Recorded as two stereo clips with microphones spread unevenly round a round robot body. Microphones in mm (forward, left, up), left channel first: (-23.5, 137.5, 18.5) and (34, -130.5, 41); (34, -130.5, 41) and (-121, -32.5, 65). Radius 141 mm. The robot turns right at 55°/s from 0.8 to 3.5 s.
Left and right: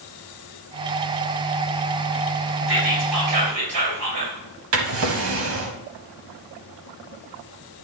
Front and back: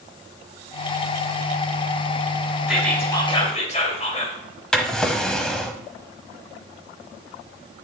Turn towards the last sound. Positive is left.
turn(degrees=-120)